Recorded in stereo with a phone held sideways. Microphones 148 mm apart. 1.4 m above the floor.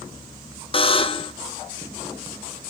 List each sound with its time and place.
0.7 s a buzzer: 35° left (ahead or behind), 0.5 m